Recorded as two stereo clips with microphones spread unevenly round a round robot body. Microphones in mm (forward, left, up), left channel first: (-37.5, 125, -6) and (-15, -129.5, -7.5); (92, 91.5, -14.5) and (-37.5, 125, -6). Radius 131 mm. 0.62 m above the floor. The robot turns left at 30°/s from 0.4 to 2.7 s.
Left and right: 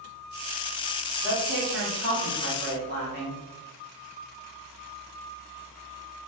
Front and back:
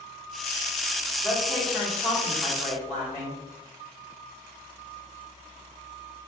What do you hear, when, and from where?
1.2 s a woman speaking: 80° right, 1.0 m; by 3.4 s 125° right, 1.0 m